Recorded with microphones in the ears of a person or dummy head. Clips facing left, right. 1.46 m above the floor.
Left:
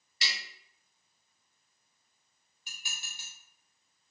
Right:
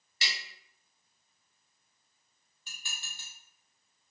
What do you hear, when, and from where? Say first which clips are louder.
0.2 s tapping: even; 25° right (ahead or behind), 1.5 m
2.7 s dishes clattering: even; 10° left (ahead or behind), 1.9 m